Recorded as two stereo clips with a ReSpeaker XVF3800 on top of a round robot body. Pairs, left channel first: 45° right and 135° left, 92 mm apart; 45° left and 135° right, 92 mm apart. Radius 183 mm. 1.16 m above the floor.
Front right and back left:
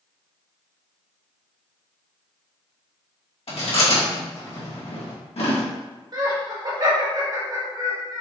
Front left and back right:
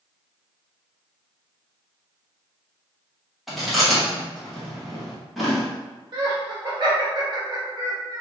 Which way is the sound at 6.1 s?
175° right.